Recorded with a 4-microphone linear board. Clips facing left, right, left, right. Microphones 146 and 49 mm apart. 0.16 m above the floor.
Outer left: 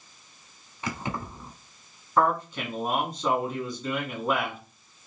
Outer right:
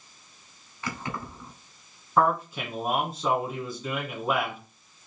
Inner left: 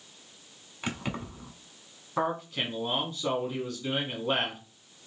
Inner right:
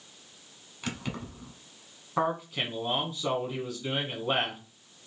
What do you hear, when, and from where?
0.8 s keys jangling: 20° left (ahead or behind), 0.8 m
2.2 s a man speaking: 5° right (ahead or behind), 1.1 m